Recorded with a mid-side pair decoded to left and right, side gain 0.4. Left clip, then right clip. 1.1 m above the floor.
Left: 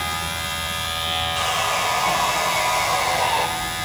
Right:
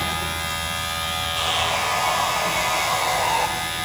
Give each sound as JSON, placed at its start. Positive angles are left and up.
{"t": 1.4, "sound": "sawing", "azimuth_deg": 25, "distance_m": 5.5}